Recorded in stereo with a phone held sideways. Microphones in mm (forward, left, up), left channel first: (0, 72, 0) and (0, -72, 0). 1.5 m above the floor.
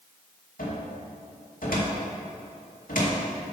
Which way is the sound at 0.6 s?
80° left.